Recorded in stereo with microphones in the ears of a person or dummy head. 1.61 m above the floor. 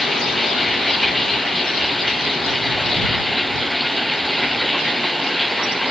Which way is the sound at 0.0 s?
Centre (ahead or behind).